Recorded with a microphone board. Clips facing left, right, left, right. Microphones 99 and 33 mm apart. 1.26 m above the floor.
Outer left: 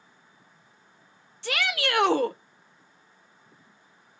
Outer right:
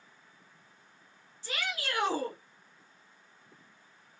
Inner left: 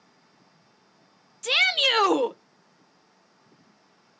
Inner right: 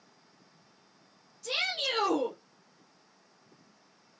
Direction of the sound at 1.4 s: 75° left (ahead or behind).